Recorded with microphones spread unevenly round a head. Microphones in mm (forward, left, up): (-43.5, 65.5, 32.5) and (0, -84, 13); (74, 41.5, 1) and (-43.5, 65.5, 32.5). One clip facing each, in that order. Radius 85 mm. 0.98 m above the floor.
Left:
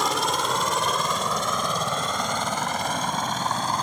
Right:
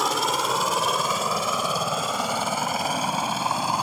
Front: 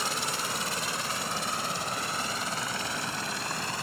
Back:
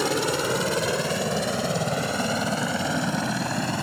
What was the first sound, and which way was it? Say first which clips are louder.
A helicopter: even, back 10 dB; 160° right.